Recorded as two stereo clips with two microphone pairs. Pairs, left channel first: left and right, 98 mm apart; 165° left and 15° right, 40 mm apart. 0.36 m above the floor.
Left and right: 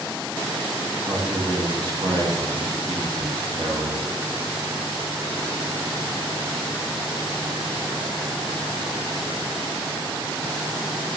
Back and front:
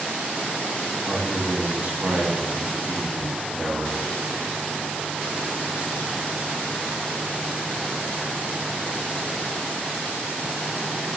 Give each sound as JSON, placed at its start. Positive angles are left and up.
{"t": 1.1, "sound": "a man speaking", "azimuth_deg": -60, "distance_m": 2.5}